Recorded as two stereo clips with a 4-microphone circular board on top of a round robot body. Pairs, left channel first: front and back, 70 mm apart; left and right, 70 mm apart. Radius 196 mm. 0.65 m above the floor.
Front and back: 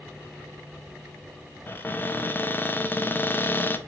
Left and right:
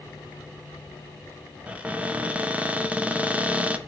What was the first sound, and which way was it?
A cupboard door, 35° right.